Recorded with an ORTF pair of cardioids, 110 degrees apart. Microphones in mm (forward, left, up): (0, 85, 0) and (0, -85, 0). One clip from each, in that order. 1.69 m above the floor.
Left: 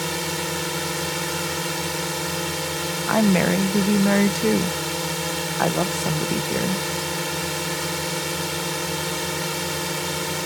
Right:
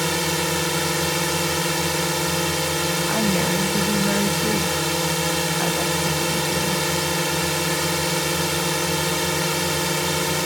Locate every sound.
0.0 s a drone: 25° right
3.1 s a woman speaking: 35° left